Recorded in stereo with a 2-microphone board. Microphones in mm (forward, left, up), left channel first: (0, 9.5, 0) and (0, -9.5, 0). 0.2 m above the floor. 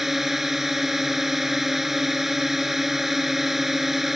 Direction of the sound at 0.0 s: 15° right (ahead or behind).